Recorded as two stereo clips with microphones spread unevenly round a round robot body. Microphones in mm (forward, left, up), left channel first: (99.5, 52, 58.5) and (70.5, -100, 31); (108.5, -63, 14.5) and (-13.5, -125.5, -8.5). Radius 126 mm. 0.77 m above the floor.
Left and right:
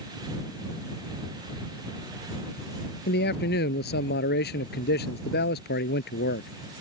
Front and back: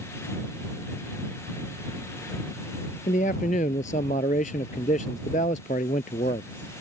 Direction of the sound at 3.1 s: 85° left.